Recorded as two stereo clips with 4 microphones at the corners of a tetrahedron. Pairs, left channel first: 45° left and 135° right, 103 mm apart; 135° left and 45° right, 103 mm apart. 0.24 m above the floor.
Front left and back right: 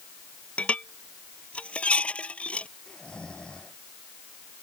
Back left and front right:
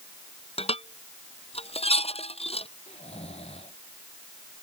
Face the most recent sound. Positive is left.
turn(degrees=125)